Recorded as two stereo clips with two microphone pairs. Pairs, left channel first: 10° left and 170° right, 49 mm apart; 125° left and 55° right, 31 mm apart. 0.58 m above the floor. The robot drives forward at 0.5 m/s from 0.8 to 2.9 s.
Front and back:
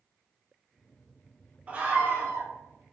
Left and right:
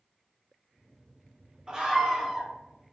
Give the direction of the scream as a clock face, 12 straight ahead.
4 o'clock.